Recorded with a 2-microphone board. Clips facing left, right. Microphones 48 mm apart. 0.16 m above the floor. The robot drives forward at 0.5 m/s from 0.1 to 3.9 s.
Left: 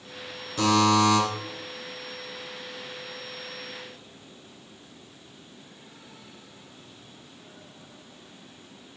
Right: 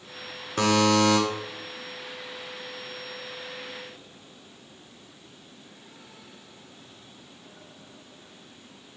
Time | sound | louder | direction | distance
0.6 | a buzzer | even | 60° right (ahead or behind) | 0.7 m